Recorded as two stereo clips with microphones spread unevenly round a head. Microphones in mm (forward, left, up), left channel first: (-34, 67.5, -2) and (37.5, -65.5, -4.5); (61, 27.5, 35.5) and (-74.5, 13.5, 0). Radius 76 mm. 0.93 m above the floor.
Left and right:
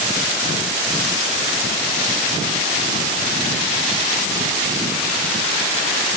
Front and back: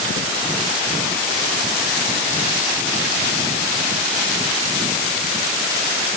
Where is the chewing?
No chewing in this recording.